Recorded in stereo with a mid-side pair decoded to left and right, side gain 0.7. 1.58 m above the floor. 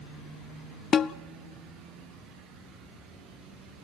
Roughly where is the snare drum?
Ahead left.